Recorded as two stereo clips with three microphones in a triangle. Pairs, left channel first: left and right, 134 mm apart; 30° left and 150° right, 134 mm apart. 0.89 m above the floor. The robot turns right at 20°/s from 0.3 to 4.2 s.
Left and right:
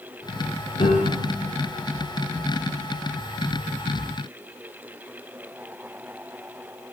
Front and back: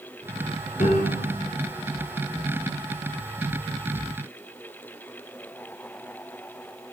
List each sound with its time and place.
0.8 s a piano: 60° left, 6 m; by 1.5 s 75° left, 6 m